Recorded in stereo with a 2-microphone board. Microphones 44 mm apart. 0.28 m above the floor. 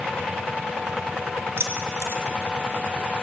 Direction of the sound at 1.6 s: 75° right (ahead or behind).